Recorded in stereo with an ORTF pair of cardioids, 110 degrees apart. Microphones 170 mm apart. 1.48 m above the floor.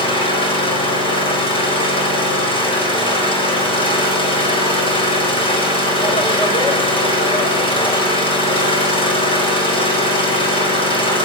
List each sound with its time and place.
0.0 s an engine running: 30° left, 7.5 m